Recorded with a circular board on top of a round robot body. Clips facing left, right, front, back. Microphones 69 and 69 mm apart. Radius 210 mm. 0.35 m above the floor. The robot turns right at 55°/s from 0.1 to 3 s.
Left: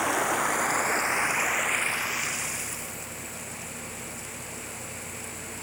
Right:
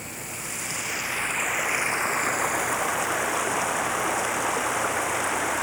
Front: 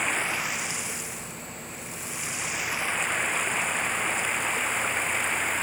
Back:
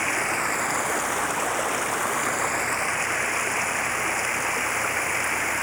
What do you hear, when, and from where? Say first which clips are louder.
0.0 s running water: left 12 dB, back 3 dB; 100° left; by 5.6 s 100° right